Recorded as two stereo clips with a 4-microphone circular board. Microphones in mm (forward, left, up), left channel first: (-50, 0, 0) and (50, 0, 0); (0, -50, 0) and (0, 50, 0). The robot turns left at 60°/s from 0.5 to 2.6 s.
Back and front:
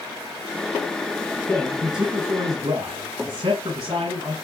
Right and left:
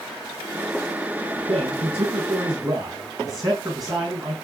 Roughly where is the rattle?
I don't hear a rattle.